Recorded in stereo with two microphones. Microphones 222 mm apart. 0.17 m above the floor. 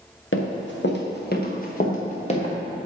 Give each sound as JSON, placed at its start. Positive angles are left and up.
{"t": 0.3, "sound": "running footsteps", "side_deg": 65, "distance_m": 2.0}